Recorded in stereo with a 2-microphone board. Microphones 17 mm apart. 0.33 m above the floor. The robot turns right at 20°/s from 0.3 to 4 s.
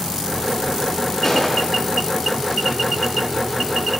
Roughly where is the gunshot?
Left.